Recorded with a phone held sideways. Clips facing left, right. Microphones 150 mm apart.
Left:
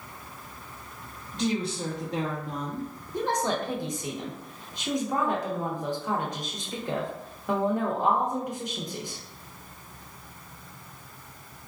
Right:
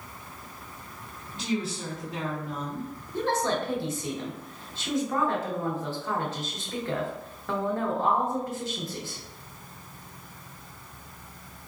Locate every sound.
1.3 s a woman speaking: 40° left (ahead or behind), 1.0 m
3.1 s a woman speaking: 15° left (ahead or behind), 0.9 m